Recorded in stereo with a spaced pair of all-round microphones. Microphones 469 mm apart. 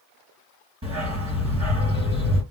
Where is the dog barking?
35° right (ahead or behind), 2.5 m.